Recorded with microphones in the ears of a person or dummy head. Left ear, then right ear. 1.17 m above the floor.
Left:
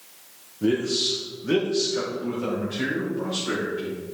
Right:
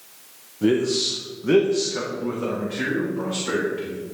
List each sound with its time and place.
0.6 s a man speaking: 25° right (ahead or behind), 0.7 m; by 4.0 s 15° right (ahead or behind), 3 m